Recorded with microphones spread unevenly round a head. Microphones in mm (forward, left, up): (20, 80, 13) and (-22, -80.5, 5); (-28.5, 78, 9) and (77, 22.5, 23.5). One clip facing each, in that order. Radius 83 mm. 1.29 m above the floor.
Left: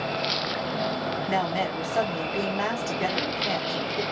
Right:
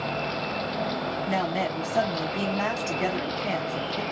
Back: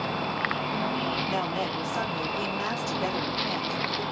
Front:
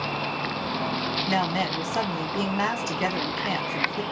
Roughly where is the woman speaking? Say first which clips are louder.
Even, front 3 dB; ahead.